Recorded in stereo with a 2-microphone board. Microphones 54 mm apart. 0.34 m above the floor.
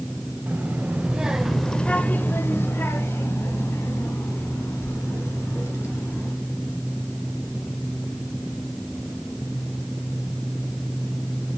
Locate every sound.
0.5 s a child speaking: 30° right (ahead or behind), 1.0 m; by 6.3 s 55° left (ahead or behind), 3 m